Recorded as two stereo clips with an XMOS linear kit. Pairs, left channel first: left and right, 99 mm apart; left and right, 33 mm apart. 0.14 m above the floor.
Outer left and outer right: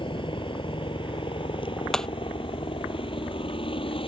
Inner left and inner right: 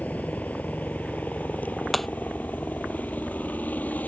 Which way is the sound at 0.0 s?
60° left (ahead or behind).